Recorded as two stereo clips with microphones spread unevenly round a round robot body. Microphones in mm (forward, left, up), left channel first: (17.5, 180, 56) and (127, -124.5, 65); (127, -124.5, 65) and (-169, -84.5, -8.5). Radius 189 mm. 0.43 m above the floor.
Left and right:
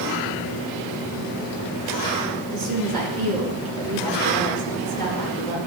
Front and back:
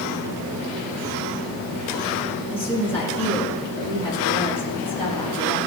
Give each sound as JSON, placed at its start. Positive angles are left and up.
{"t": 2.5, "sound": "a woman speaking", "azimuth_deg": -85, "distance_m": 6.0}